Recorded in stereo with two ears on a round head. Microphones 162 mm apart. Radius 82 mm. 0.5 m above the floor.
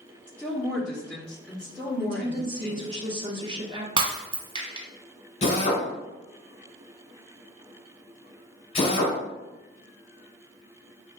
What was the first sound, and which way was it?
A woman speaking, 5° left (ahead or behind).